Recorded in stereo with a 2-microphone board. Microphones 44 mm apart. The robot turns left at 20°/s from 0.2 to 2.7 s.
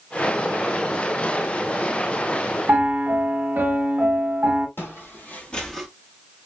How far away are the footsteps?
About 1.5 m.